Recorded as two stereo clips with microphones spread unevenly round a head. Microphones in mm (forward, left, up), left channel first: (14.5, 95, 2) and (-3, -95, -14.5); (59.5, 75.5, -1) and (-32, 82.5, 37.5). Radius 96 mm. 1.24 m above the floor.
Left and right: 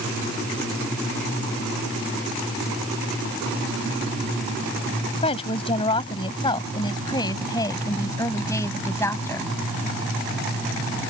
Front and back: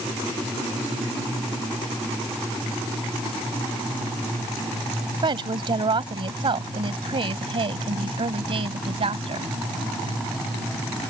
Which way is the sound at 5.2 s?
145° left.